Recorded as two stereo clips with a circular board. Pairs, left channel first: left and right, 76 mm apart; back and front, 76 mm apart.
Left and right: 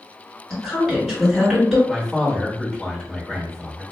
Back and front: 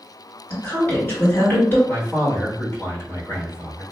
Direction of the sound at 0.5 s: Straight behind.